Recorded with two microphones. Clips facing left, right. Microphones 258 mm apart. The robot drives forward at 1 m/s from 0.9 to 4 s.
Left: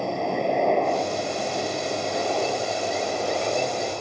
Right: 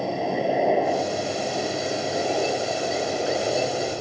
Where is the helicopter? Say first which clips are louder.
Right 1 dB; 5° right (ahead or behind); by 4.0 s 15° right (ahead or behind).